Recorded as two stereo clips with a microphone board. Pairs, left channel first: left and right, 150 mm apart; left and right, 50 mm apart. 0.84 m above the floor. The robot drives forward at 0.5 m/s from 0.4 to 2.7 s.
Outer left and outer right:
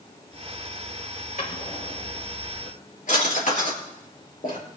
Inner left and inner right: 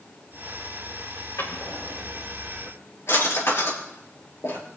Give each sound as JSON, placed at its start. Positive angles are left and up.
{"t": 1.4, "sound": "a drawer", "side_deg": 70, "distance_m": 6.5}